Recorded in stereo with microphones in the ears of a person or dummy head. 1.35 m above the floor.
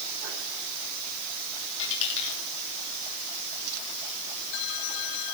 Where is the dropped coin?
70° left (ahead or behind), 7.5 m.